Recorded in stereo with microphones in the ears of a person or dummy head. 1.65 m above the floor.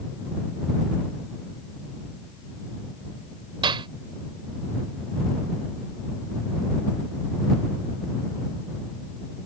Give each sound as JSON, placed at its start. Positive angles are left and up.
{"t": 3.6, "sound": "a clap", "side_deg": -25}